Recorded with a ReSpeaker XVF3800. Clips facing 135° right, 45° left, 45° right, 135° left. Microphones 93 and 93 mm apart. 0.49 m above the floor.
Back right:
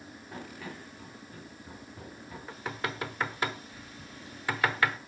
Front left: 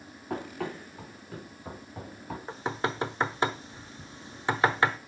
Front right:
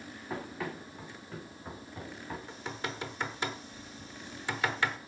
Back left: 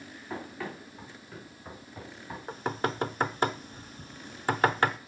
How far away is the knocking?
About 0.8 m.